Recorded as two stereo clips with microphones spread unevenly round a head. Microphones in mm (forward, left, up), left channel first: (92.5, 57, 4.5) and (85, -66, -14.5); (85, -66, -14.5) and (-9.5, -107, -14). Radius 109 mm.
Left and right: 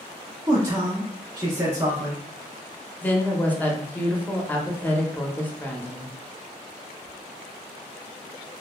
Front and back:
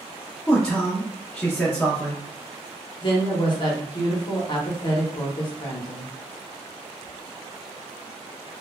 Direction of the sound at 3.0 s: 5° left.